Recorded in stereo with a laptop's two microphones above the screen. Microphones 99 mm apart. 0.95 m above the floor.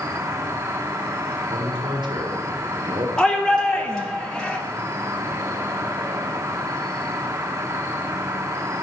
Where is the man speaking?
50° right (ahead or behind), 1.7 m.